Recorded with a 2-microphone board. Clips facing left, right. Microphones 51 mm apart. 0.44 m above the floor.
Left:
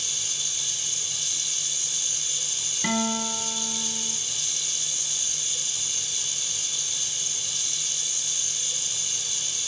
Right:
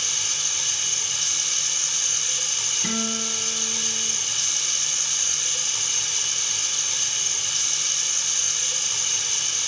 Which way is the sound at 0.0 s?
65° right (ahead or behind).